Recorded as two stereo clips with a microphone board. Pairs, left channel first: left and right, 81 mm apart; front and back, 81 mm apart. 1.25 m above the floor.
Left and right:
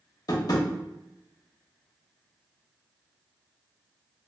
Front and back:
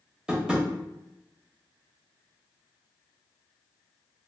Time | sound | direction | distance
0.3 | tapping | 105° left | 0.7 m